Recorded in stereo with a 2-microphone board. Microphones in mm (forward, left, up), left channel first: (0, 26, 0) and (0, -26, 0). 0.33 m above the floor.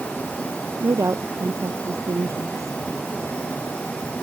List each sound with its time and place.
0.8 s a woman speaking: 80° right